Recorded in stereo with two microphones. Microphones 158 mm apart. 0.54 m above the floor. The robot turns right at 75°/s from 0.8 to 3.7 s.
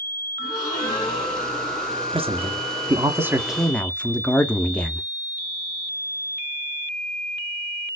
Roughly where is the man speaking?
Right.